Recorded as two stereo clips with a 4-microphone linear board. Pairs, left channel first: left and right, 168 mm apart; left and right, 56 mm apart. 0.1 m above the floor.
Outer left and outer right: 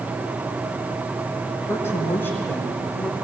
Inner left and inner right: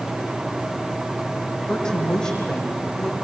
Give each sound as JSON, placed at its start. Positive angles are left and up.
{"t": 1.7, "sound": "a woman speaking", "side_deg": 15, "distance_m": 4.5}